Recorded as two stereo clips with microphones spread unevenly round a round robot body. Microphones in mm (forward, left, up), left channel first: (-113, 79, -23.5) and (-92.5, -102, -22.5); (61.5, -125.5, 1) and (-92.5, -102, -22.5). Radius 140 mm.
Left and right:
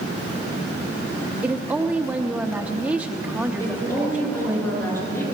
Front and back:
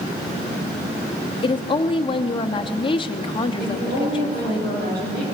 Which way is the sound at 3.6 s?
175° left.